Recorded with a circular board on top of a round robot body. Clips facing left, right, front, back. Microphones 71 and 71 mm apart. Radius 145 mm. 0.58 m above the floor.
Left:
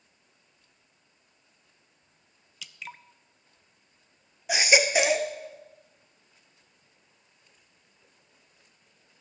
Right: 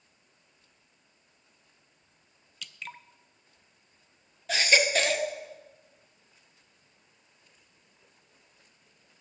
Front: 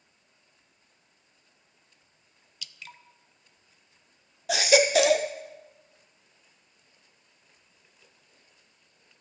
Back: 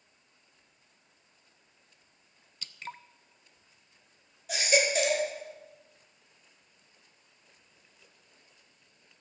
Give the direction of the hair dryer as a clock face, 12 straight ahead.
I don't hear a hair dryer.